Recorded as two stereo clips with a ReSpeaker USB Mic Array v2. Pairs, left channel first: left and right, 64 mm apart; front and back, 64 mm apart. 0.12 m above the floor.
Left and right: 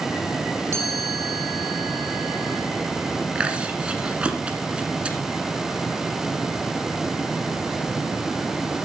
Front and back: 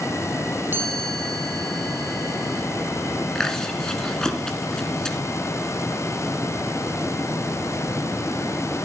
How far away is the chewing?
About 1.4 m.